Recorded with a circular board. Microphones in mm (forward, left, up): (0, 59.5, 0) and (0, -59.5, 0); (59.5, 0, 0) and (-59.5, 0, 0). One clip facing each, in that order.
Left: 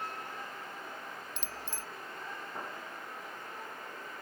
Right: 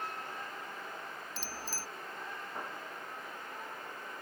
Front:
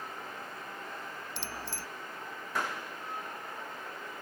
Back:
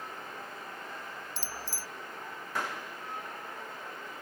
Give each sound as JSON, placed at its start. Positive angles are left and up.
{"t": 1.4, "sound": "a bicycle bell", "azimuth_deg": -30}